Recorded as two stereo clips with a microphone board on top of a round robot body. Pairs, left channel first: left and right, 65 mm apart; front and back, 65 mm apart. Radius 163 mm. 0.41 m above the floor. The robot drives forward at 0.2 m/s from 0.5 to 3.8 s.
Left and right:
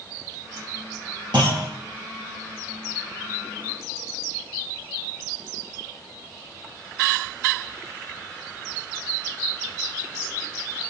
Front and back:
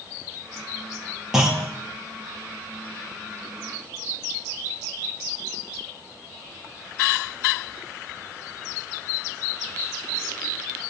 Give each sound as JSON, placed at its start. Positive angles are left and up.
{"t": 1.3, "sound": "a clunk", "azimuth_deg": -100, "distance_m": 3.0}